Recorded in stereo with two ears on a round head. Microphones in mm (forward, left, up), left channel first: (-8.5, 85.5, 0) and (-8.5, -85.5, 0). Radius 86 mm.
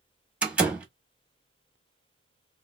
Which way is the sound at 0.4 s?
5° right (ahead or behind).